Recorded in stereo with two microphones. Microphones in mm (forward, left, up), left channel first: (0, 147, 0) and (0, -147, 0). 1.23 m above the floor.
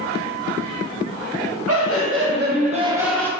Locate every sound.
1.7 s laughter: 55° right (ahead or behind), 1.1 m; by 3.3 s 10° left (ahead or behind), 0.6 m